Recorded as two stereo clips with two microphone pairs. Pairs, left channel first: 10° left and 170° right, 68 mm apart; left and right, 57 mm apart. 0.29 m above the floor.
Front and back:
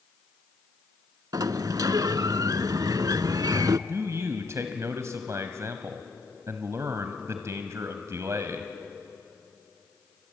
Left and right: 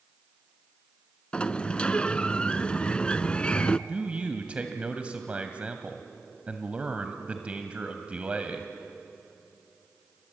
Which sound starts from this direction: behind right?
A man speaking, at 3.9 s.